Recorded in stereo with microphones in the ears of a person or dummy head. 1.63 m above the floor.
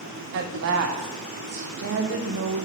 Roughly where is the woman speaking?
Right.